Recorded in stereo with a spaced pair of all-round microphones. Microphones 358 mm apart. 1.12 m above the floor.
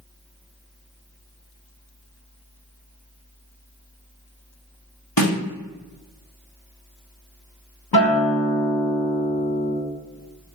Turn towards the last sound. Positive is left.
turn(degrees=75)  # may be behind; listen again after turning